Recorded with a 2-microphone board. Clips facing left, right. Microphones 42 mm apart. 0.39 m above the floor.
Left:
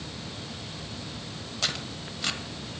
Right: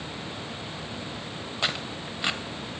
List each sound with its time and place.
1.6 s tearing paper: 25° right (ahead or behind), 0.5 m